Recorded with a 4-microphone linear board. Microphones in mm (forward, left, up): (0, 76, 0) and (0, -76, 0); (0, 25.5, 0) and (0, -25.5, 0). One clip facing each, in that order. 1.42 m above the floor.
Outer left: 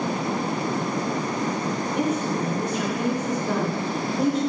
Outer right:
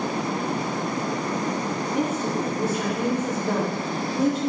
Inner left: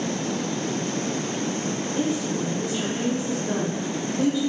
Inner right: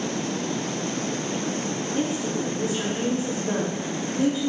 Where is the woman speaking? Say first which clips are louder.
Even, inner left 1 dB; 10° right (ahead or behind), 3 m.